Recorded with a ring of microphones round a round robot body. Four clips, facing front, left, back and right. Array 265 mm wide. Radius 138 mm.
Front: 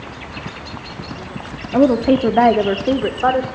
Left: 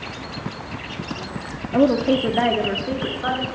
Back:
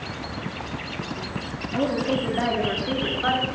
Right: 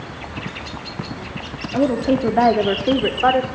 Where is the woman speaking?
20° left, 1.6 m; by 3.5 s 45° right, 3 m.